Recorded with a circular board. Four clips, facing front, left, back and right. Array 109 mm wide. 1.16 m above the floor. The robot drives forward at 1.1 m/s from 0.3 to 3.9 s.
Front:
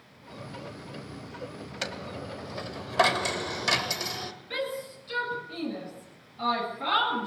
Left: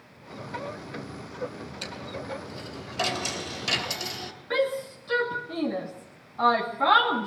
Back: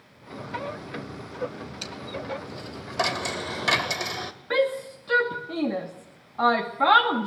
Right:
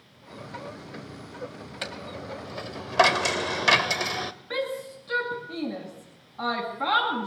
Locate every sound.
1.8 s a dropped coin: 35° right, 2 m; by 4.3 s 115° right, 1.6 m
4.5 s a shout: 175° left, 2.5 m